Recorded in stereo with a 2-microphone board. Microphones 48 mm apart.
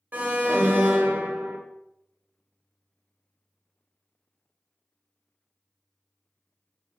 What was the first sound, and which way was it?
An alarm, 40° right (ahead or behind).